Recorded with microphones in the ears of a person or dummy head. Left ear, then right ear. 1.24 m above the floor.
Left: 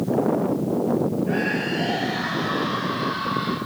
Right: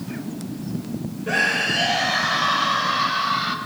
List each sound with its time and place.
1.3 s a scream: 50° right (ahead or behind), 6 m; by 3.6 s 35° right (ahead or behind), 7.5 m